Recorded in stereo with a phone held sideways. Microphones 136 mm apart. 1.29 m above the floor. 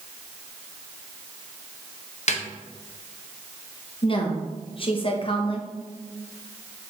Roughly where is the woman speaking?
Left.